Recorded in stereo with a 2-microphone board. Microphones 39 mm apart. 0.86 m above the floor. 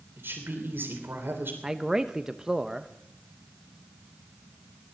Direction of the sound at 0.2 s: 70° right (ahead or behind).